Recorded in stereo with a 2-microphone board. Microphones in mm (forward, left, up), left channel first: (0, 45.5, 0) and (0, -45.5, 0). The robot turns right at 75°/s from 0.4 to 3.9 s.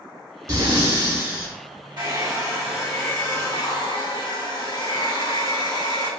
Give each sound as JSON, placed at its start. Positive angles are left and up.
{"t": 0.5, "sound": "breathing", "azimuth_deg": -90, "distance_m": 1.0}
{"t": 2.0, "sound": "a hair dryer", "azimuth_deg": -75, "distance_m": 1.3}